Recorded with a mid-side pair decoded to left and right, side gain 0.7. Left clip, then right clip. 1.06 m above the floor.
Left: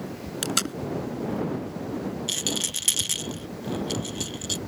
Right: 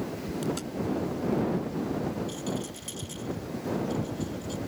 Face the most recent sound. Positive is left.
turn(degrees=60)